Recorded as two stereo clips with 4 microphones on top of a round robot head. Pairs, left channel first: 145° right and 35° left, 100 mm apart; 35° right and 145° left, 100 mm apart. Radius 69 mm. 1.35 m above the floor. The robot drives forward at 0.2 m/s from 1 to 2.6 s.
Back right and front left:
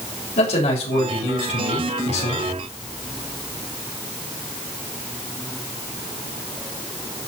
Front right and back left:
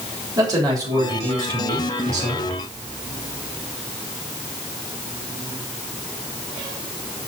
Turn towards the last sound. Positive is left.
turn(degrees=-160)